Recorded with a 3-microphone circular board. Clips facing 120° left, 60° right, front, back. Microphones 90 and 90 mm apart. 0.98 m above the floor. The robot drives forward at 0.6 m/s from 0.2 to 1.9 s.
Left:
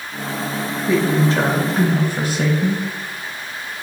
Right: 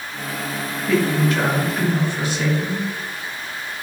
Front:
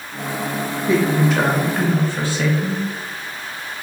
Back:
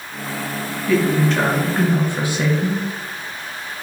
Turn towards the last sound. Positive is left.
turn(degrees=115)